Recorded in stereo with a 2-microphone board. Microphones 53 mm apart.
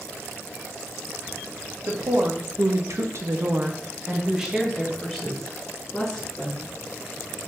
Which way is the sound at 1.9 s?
70° right (ahead or behind).